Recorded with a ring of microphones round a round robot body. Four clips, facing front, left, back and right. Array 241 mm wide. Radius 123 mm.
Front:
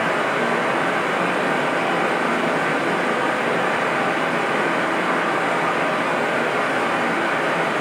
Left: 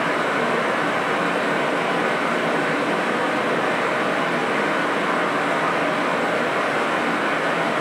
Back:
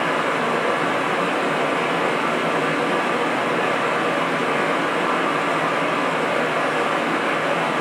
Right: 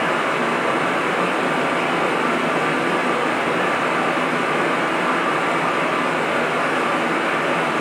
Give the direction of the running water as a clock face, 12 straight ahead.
3 o'clock.